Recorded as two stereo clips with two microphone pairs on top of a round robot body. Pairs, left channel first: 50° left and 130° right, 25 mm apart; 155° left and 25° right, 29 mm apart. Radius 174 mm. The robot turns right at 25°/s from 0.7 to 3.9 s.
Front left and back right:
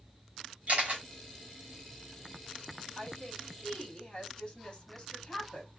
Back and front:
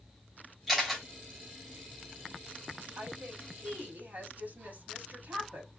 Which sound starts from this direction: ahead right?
A woman speaking, at 3.0 s.